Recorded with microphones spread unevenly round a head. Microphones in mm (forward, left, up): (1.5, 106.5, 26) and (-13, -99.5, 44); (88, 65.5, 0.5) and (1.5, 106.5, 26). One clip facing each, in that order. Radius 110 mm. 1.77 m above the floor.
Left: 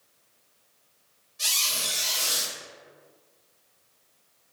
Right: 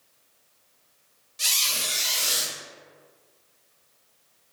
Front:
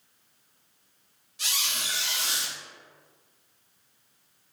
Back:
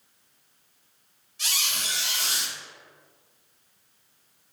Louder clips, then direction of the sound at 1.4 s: Right 1 dB, back 1 dB; 60° right.